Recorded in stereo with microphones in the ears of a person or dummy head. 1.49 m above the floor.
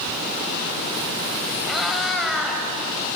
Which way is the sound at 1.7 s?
Centre (ahead or behind).